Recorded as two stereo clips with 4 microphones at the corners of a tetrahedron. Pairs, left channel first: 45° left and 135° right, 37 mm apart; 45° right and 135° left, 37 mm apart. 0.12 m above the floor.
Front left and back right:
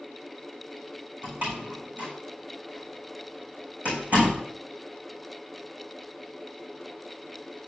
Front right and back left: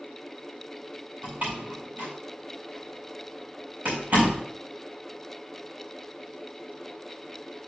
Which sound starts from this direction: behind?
A door slam, at 1.2 s.